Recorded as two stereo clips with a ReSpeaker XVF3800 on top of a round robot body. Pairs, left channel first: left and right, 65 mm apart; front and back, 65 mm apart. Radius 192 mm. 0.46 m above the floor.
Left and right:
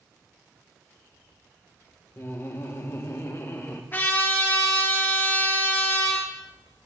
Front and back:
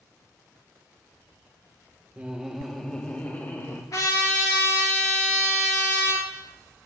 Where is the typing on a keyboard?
No typing on a keyboard in this recording.